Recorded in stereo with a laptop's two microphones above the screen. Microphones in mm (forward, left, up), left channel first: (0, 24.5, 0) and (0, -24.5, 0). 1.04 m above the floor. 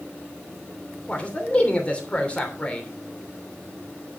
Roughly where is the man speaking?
Left.